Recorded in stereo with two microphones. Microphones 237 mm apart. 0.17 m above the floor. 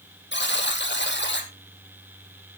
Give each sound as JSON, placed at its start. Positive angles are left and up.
{"t": 0.3, "sound": "a buzzer", "side_deg": 50, "distance_m": 2.5}